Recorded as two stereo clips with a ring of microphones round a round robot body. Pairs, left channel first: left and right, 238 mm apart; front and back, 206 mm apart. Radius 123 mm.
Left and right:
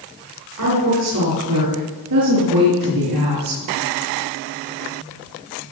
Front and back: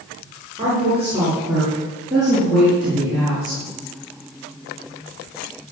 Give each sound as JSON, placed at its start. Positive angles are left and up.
{"t": 0.6, "sound": "a woman speaking", "azimuth_deg": -100, "distance_m": 7.0}